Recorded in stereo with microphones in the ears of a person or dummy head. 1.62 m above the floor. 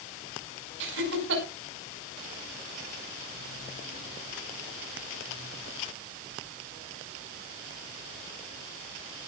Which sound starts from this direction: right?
Laughter, at 0.8 s.